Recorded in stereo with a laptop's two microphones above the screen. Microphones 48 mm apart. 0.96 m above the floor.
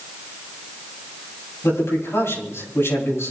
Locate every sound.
1.6 s a man speaking: 75° left (ahead or behind), 8 m